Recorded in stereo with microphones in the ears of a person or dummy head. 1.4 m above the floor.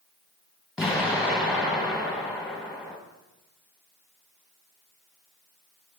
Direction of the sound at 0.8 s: Centre (ahead or behind).